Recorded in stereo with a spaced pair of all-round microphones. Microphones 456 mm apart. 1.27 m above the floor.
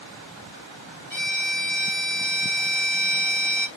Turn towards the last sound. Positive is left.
turn(degrees=-40)  # may be behind; listen again after turning